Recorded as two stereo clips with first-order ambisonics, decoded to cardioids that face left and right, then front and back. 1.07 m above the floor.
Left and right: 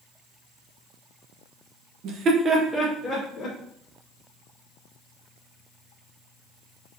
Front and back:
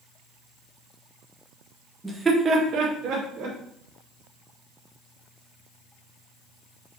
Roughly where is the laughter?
Right.